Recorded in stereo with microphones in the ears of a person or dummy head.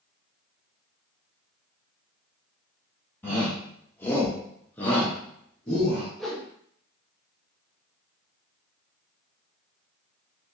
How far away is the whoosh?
About 0.6 m.